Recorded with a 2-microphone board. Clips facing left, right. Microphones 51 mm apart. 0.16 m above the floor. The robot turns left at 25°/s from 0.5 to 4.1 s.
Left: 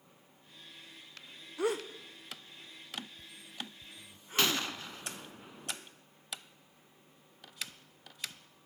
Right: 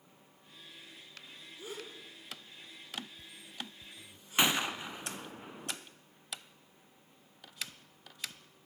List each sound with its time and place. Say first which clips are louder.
1.6 s a gasp: left 13 dB; 75° left (ahead or behind), 2.5 m; by 4.7 s 40° left (ahead or behind), 2.5 m
4.4 s a gunshot: right 2 dB; 20° right (ahead or behind), 1.7 m